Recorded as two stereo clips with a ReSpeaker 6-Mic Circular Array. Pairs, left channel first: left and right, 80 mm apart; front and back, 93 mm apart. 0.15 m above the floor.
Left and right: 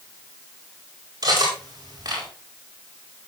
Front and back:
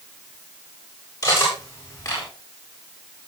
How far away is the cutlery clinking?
About 9 m.